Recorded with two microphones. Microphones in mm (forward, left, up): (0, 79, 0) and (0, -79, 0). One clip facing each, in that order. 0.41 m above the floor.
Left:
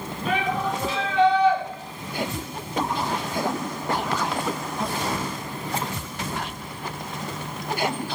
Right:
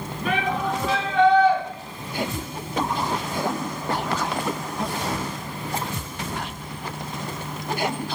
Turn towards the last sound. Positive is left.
turn(degrees=-45)  # may be behind; listen again after turning